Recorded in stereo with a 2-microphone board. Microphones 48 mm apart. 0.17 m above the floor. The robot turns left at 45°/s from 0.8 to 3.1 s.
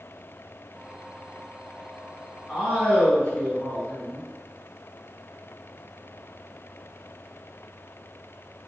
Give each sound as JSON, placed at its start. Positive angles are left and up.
{"t": 2.5, "sound": "a man speaking", "side_deg": 10, "distance_m": 1.7}